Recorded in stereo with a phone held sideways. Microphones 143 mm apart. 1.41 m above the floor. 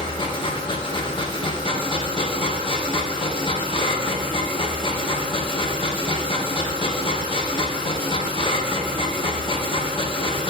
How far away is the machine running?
About 0.7 m.